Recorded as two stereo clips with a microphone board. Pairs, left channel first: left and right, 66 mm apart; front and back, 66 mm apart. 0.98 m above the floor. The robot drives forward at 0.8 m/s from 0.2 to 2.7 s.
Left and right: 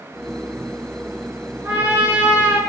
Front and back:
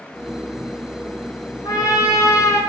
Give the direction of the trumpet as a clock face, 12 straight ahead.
1 o'clock.